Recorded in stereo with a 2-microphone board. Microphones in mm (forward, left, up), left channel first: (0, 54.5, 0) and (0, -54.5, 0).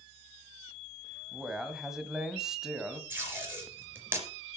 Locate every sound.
1.3 s a man speaking: 5° right (ahead or behind), 1.5 m
3.1 s tape being pulled: 15° right (ahead or behind), 3 m